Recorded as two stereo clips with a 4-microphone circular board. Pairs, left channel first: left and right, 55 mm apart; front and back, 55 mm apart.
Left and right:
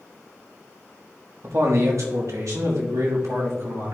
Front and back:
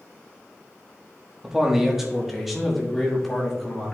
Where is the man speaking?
105° right, 1.3 m; by 4.0 s 85° right, 2.5 m.